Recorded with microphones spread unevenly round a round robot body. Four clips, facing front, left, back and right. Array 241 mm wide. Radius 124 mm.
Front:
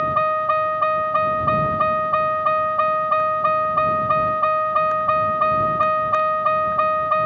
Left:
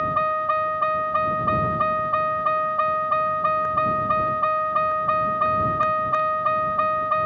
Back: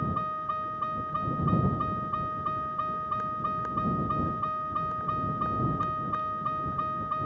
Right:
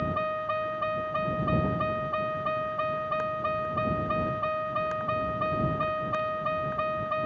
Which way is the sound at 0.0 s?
15° left.